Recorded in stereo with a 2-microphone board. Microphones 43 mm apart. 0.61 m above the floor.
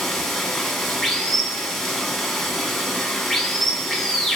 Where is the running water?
5° left (ahead or behind), 0.9 m.